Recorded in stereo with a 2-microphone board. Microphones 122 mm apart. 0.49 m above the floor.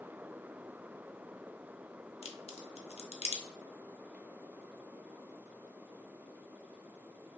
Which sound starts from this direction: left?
A crack, at 2.2 s.